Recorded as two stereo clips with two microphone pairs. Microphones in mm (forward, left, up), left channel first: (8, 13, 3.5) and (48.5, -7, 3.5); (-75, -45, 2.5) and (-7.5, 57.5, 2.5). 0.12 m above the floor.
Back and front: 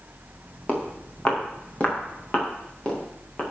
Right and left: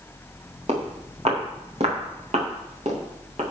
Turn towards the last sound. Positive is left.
turn(degrees=85)